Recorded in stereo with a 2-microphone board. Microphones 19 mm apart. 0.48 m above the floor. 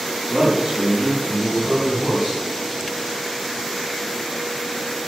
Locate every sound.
0.3 s a man speaking: 60° right (ahead or behind), 4.5 m; by 2.4 s 70° right (ahead or behind), 3.5 m